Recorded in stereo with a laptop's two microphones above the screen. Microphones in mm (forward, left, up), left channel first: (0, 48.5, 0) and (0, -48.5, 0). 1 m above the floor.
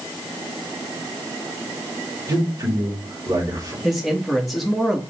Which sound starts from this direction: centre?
A man speaking, at 3.8 s.